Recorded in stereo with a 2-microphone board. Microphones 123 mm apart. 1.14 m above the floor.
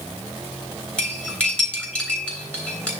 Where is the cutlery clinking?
10° left (ahead or behind), 3.5 m.